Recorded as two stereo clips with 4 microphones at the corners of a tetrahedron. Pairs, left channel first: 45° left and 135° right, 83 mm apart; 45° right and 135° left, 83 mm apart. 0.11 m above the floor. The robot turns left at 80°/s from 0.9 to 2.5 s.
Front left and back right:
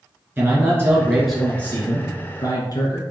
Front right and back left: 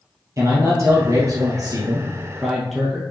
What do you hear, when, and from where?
0.4 s a man speaking: 170° left, 2.5 m; by 3.0 s 40° left, 2.5 m